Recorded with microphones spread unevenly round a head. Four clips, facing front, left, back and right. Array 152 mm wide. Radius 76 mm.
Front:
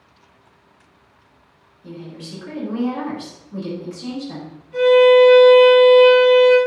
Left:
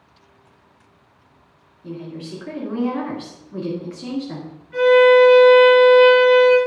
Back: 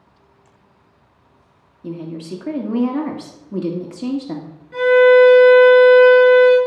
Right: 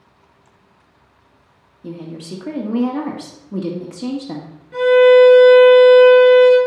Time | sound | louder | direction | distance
1.8 | a woman speaking | right 1 dB, back 7 dB | 140° right | 1.7 m
4.7 | a violin | right 2 dB, back 1 dB | 130° right | 6 m